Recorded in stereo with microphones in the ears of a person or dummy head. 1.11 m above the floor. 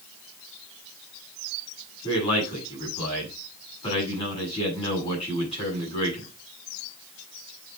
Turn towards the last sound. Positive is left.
turn(degrees=20)  # may be behind; listen again after turning